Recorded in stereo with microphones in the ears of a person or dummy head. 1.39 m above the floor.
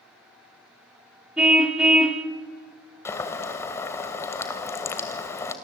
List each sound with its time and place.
1.4 s a car horn: centre (ahead or behind), 2 m
3.0 s boiling: 20° left (ahead or behind), 2 m